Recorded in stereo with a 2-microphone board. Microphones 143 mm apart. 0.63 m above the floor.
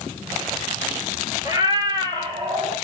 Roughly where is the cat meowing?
Right.